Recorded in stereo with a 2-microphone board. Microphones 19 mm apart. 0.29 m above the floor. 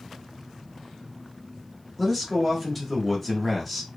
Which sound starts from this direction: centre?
A man speaking, at 2.0 s.